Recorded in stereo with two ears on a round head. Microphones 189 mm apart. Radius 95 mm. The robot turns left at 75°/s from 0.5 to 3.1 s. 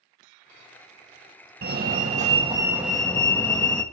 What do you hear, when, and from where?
1.6 s a fire alarm: 80° right, 1.7 m; by 3.8 s 170° left, 1.7 m